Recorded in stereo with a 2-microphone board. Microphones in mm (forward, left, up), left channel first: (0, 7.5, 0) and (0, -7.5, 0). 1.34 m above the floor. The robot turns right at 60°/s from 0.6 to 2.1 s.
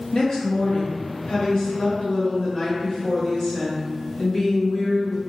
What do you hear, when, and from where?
0.1 s a woman speaking: 65° left, 1.1 m; by 5.2 s 155° left, 1.1 m